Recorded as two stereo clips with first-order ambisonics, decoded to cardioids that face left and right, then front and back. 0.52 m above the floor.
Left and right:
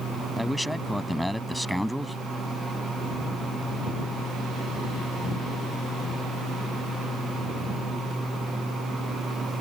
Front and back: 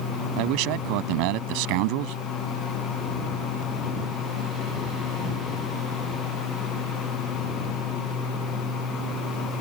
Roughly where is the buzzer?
No buzzer in this recording.